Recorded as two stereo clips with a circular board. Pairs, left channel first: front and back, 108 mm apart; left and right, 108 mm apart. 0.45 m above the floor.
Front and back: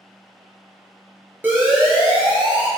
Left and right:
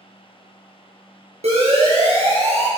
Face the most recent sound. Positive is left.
turn(degrees=-100)